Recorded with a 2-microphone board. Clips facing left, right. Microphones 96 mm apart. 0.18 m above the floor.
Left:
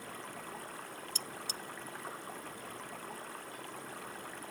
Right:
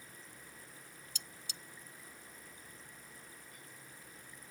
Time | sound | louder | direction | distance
0.0 | running water | left 11 dB | 75° left (ahead or behind) | ?
1.1 | cutlery clinking | left 10 dB | 50° left (ahead or behind) | ?